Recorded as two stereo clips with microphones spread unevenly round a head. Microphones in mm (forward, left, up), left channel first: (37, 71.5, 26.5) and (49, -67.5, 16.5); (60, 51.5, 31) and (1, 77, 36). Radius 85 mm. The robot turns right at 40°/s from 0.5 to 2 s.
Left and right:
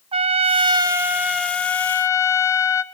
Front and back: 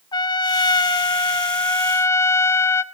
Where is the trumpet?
35° right, 0.6 m; by 2.8 s 25° left, 0.6 m.